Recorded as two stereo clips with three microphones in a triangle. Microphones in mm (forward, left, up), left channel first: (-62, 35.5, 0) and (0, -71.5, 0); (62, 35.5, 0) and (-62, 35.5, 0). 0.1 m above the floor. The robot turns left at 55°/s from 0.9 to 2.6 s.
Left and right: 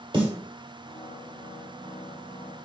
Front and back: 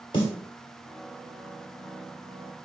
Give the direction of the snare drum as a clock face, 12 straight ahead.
1 o'clock.